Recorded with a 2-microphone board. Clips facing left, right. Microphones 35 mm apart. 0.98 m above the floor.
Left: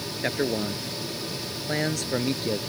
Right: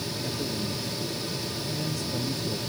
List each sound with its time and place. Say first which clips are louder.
0.2 s a man speaking: left 8 dB; 80° left